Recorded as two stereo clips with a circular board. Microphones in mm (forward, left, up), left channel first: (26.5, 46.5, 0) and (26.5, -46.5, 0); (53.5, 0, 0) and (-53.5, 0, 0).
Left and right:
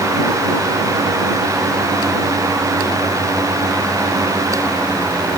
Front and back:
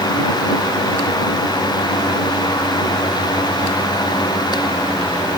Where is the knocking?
I don't hear knocking.